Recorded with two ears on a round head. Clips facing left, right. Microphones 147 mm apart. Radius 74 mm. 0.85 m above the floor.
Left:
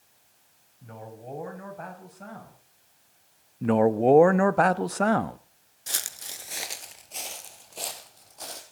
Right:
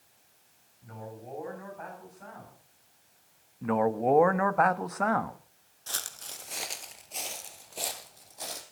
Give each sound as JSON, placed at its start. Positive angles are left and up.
{"t": 0.8, "sound": "a man speaking", "side_deg": 45, "distance_m": 6.0}
{"t": 3.6, "sound": "a man speaking", "side_deg": 35, "distance_m": 0.8}
{"t": 5.9, "sound": "footsteps", "side_deg": 15, "distance_m": 0.8}